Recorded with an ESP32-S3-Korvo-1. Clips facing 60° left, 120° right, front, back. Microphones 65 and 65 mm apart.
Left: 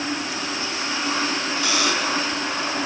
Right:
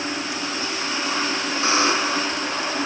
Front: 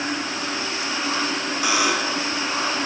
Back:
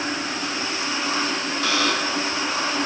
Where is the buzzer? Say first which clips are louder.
Right 4 dB, front 2 dB; 75° right, 1.0 m.